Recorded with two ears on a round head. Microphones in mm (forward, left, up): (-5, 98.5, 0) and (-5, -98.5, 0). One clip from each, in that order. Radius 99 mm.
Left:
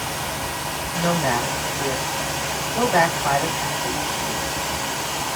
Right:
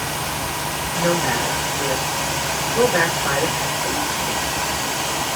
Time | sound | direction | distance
0.9 | a man speaking | 35° left (ahead or behind) | 4 m